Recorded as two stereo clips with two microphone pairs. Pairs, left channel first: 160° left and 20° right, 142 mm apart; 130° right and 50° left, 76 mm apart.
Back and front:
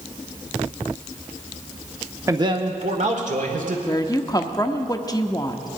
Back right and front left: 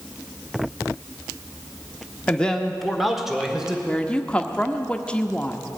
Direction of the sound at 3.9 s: 170° left.